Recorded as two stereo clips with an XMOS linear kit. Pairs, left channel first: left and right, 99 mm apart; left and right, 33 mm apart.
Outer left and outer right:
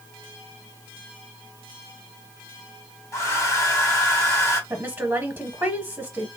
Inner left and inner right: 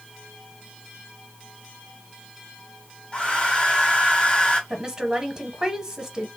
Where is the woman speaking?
20° right (ahead or behind), 0.9 m.